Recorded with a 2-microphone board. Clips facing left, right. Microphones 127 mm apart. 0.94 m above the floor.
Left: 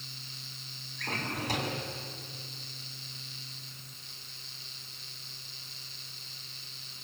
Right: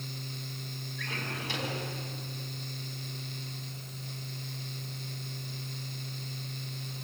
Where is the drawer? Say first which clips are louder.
Left 4 dB; 40° left (ahead or behind), 4.5 m.